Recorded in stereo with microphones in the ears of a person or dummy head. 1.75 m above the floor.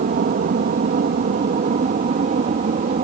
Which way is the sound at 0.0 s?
50° right (ahead or behind).